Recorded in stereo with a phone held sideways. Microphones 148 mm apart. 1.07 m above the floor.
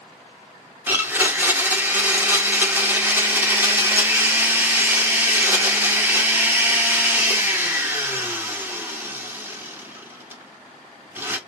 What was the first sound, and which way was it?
A blender, 15° right (ahead or behind).